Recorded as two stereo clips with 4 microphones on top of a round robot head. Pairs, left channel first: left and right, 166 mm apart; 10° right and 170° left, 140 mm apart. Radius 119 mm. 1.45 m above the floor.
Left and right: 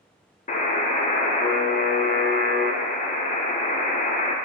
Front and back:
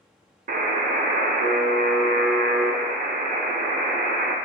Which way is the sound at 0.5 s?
140° left.